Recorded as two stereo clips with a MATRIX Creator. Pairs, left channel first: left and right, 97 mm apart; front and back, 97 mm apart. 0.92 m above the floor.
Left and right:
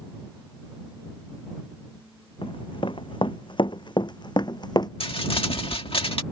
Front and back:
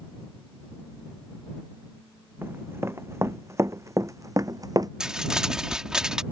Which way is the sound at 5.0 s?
100° left.